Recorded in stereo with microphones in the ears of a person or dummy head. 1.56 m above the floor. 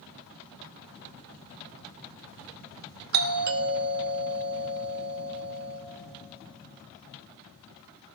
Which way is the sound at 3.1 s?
50° right (ahead or behind).